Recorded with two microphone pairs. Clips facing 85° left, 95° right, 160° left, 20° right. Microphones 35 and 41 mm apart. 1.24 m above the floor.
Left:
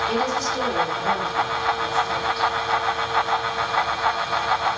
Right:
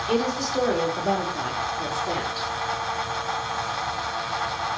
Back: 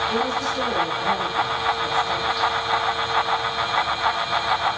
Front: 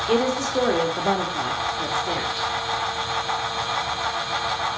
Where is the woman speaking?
10° right, 3 m; by 2.5 s 45° right, 3 m.